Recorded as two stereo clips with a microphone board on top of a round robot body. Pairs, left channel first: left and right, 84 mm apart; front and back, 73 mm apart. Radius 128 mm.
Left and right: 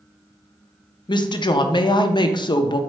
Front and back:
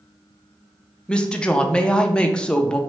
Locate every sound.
1.1 s a woman speaking: 75° left, 0.5 m